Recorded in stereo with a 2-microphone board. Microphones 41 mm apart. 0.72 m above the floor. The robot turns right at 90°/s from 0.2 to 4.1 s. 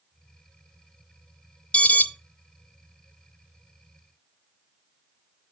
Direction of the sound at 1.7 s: 25° left (ahead or behind).